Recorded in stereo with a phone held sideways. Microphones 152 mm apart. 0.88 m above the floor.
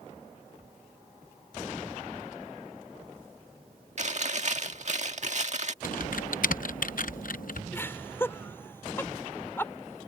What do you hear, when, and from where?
4.0 s chewing: 55° right (ahead or behind)
5.8 s typing on a keyboard: 70° left (ahead or behind)
7.7 s laughter: 15° left (ahead or behind)